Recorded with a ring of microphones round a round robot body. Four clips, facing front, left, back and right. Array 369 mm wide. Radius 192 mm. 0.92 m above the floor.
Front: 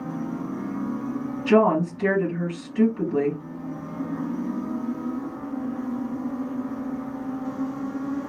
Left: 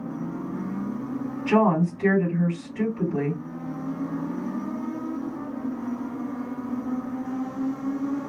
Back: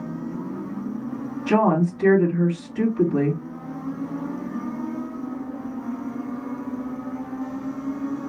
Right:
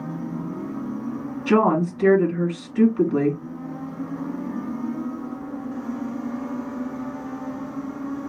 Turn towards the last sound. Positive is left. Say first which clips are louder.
# right 2 dB, front 1 dB
turn(degrees=-90)